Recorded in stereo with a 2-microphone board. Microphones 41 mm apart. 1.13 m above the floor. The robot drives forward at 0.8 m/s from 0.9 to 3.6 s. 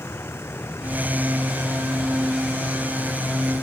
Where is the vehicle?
85° left; by 3.6 s 80° left.